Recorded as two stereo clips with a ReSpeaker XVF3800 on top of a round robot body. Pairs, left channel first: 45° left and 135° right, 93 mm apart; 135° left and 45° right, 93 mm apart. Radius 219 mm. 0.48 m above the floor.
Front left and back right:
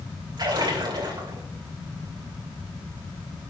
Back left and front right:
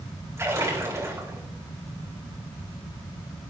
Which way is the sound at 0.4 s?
105° right.